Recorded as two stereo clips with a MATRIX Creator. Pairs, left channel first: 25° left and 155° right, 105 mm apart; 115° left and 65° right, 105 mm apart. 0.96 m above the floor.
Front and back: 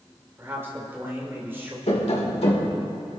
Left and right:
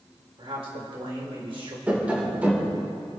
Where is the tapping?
10° left, 1.9 m.